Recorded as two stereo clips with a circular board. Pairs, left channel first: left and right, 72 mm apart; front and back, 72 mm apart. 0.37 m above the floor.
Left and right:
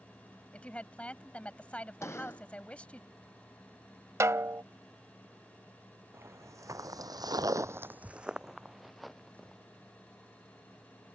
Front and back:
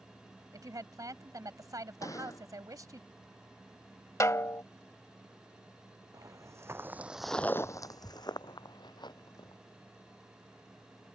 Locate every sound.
0.5 s a woman speaking: 160° left
2.0 s a gunshot: 40° left
4.2 s a snare drum: 45° right
6.1 s footsteps: 140° right; by 9.6 s 5° left